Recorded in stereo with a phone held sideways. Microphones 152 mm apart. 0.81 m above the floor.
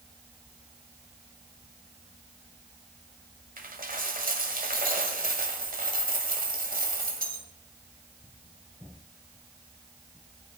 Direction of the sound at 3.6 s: 65° right (ahead or behind).